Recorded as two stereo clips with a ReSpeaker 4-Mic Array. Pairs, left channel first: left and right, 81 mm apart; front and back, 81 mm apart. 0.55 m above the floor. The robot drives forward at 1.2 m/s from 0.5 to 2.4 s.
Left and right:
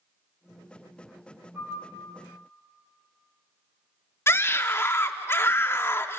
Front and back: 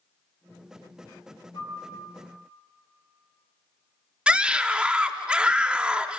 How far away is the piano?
About 8.5 m.